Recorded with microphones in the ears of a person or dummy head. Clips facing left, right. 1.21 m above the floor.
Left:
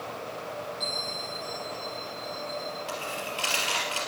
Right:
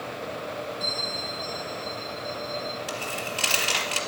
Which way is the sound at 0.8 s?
20° left (ahead or behind).